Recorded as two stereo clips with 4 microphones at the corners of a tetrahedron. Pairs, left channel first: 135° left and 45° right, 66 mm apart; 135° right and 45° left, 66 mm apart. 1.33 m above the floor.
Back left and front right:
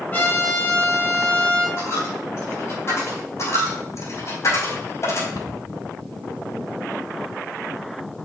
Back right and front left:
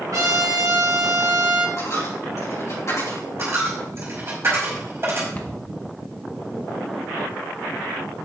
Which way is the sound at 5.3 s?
160° left.